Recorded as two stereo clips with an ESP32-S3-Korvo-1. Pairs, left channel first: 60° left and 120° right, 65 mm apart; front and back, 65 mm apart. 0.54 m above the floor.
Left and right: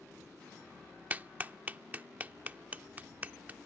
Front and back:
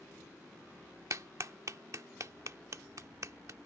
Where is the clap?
175° right.